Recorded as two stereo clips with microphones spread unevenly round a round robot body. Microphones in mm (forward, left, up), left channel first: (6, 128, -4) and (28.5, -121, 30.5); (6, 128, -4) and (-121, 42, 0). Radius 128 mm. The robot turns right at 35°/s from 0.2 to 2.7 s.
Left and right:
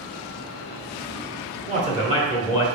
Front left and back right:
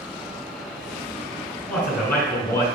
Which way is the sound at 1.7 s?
35° right.